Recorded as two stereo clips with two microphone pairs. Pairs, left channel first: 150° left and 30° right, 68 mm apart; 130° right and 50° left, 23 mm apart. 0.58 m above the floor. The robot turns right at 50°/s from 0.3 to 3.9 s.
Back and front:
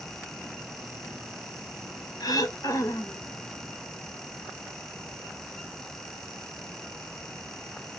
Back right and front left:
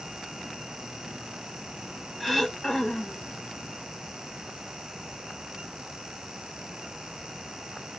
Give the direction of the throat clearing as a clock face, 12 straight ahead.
7 o'clock.